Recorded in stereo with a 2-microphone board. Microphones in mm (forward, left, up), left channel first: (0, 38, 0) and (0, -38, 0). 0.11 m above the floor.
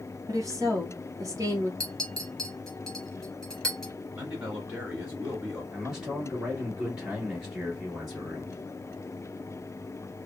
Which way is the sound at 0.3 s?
45° right (ahead or behind).